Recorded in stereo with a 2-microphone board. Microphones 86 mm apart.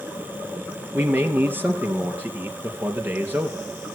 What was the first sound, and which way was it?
A man speaking, 20° right (ahead or behind).